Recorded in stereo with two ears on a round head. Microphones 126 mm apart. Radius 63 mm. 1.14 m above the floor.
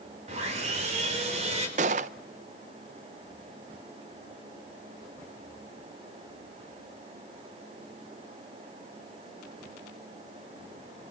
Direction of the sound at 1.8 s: 50° right (ahead or behind).